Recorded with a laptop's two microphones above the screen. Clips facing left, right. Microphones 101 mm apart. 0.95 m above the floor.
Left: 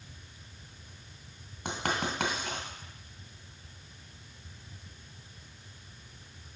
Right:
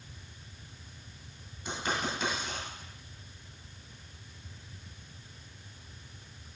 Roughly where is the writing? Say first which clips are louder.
Left 1 dB; left.